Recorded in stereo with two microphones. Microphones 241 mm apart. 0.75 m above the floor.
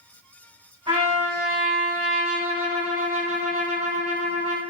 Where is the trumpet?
25° right (ahead or behind), 3.5 m.